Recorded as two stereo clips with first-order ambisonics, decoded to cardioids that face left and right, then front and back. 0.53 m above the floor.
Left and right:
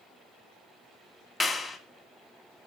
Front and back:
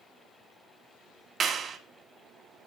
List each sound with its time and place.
1.4 s a clap: 155° left, 0.8 m